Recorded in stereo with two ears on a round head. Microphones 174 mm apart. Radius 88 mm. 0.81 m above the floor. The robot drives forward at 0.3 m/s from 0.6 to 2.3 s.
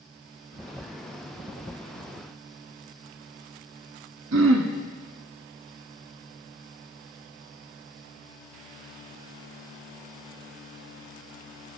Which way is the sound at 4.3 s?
70° right (ahead or behind).